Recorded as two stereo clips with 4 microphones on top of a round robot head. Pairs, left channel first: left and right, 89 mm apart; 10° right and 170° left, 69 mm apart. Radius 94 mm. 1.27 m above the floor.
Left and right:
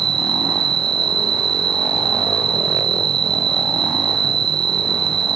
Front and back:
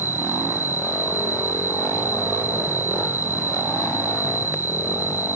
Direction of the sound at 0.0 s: 120° right.